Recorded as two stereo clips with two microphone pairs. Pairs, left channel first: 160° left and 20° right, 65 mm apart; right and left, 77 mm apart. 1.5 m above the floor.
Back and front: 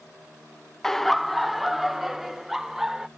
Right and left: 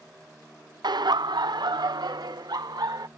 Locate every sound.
0.8 s laughter: 80° left; by 3.1 s 65° left